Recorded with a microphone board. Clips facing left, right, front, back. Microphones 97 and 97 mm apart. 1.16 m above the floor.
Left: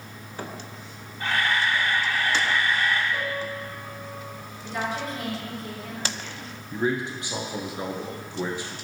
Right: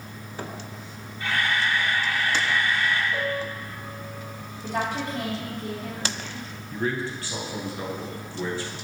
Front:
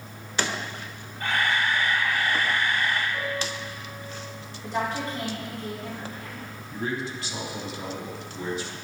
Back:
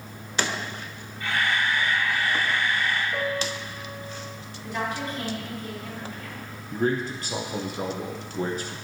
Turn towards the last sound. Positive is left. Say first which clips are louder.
# left 2 dB, back 5 dB
turn(degrees=155)